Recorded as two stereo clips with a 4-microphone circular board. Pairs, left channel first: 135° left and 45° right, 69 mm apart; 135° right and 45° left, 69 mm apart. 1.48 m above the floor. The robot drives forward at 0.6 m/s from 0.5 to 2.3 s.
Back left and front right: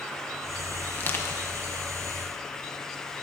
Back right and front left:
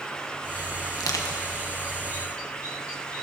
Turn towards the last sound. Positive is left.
turn(degrees=-170)